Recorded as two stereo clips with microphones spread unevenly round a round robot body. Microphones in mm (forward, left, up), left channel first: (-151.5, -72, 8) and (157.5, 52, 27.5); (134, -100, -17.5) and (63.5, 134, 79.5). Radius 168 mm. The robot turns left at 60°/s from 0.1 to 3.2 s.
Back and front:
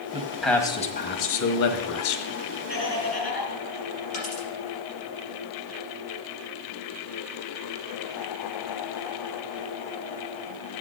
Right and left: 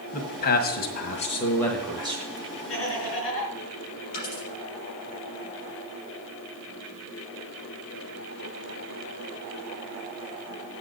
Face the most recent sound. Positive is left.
turn(degrees=-90)